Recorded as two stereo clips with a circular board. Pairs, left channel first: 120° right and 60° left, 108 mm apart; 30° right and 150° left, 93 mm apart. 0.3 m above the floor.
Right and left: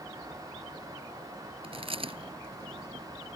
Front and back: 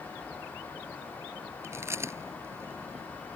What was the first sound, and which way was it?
Chewing, 90° left.